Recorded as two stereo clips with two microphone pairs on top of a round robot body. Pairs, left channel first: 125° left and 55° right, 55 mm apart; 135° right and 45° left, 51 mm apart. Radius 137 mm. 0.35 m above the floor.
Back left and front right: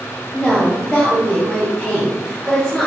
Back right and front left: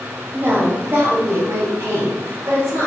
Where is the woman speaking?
45° left, 1.5 m; by 2.9 s 40° left, 2.5 m.